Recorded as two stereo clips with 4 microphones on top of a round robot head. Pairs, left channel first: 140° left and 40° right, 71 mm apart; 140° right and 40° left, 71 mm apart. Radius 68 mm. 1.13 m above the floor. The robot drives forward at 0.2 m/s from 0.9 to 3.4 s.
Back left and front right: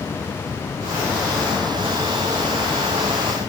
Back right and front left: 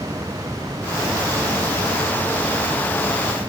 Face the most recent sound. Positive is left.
No sound to turn to.